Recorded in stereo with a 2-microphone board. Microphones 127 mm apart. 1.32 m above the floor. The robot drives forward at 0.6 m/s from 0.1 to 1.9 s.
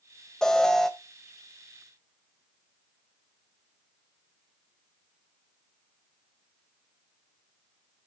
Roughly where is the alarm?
Centre.